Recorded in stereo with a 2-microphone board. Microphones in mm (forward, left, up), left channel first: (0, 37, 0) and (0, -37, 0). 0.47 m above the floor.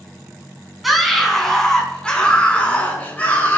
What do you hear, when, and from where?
0.8 s a scream: centre (ahead or behind), 4 m; by 3.6 s 25° left (ahead or behind), 5.5 m